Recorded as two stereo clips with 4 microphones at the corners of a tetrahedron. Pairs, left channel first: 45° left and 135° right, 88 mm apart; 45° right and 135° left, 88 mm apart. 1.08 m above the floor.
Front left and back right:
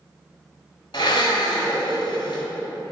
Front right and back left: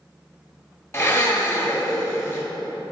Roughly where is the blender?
Ahead.